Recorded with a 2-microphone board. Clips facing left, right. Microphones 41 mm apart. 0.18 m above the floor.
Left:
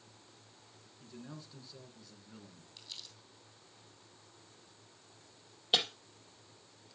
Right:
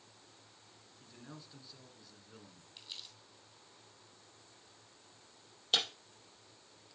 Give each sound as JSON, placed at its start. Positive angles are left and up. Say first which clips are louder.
{"t": 1.0, "sound": "a man speaking", "louder": "left 4 dB", "side_deg": -5, "distance_m": 2.0}
{"t": 2.8, "sound": "crumpling", "louder": "right 1 dB", "side_deg": -25, "distance_m": 2.5}
{"t": 5.7, "sound": "breaking glass", "louder": "left 2 dB", "side_deg": 15, "distance_m": 3.5}